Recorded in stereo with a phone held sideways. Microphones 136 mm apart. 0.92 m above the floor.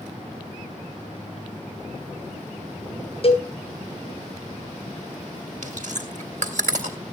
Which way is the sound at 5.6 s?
65° right (ahead or behind).